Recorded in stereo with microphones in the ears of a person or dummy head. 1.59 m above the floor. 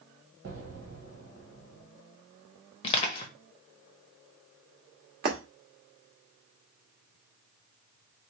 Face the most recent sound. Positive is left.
turn(degrees=-45)  # may be behind; listen again after turning